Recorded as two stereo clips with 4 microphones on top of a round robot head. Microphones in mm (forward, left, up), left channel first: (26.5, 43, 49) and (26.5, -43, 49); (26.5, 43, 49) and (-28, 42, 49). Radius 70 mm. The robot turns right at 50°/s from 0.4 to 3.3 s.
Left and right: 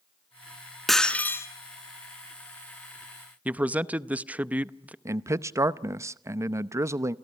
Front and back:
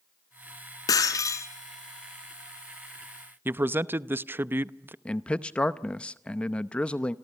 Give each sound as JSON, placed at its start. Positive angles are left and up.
{"t": 0.9, "sound": "breaking glass", "azimuth_deg": 0, "distance_m": 2.0}
{"t": 3.5, "sound": "a man speaking", "azimuth_deg": -155, "distance_m": 0.7}
{"t": 5.0, "sound": "a man speaking", "azimuth_deg": -60, "distance_m": 0.8}